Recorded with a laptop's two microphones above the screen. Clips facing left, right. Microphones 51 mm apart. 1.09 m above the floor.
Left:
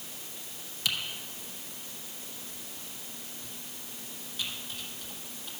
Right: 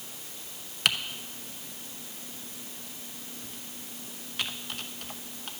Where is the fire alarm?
No fire alarm in this recording.